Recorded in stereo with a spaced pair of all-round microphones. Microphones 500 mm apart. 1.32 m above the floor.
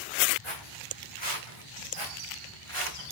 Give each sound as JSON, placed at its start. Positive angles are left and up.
{"t": 0.4, "sound": "footsteps", "side_deg": 70, "distance_m": 5.0}